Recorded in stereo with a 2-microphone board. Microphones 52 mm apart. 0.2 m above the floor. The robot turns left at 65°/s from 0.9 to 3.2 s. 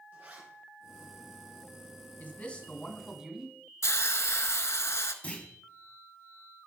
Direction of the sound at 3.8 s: 65° left (ahead or behind).